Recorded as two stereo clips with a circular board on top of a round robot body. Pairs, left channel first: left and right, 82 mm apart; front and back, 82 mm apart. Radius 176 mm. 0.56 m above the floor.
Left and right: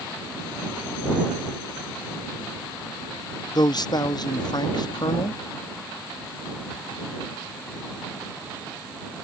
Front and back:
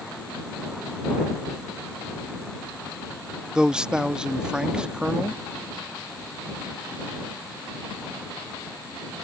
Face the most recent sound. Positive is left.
turn(degrees=100)